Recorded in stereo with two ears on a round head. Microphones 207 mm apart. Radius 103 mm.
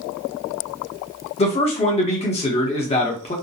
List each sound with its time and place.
1.4 s a man speaking: 25° left (ahead or behind), 0.9 m